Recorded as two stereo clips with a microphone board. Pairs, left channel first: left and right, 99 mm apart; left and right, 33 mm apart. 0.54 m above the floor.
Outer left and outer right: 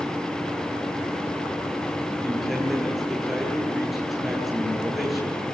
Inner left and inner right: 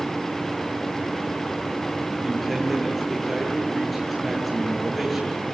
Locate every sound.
2.2 s a man speaking: centre (ahead or behind), 9.5 m